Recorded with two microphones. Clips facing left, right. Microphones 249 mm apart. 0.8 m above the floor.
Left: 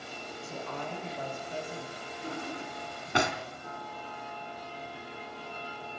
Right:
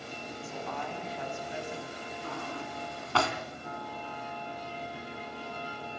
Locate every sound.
0.4 s a woman speaking: 45° left (ahead or behind), 5 m; by 2.1 s 35° left (ahead or behind), 4.5 m
2.2 s a drawer: 20° left (ahead or behind), 2.5 m